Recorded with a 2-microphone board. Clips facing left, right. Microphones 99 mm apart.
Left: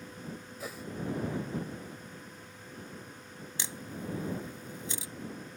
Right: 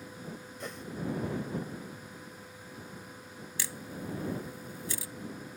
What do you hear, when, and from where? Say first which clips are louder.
0.6 s a whoosh: even; 5° left (ahead or behind)
3.6 s a camera shutter: even; 25° left (ahead or behind)